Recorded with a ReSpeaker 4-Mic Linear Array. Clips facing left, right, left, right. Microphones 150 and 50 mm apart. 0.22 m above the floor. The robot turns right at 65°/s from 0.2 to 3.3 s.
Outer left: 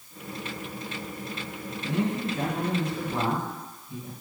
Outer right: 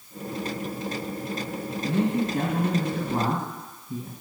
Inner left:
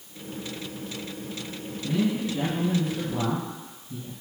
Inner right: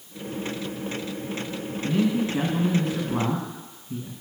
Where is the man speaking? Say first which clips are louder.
Outer right 3 dB, inner right 3 dB; 145° right, 2.5 m; by 4.1 s 50° right, 2.5 m.